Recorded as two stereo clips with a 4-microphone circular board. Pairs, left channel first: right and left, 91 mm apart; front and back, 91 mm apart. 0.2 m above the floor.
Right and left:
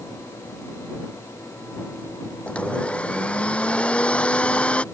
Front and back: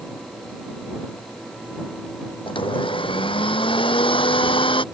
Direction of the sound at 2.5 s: 15° right.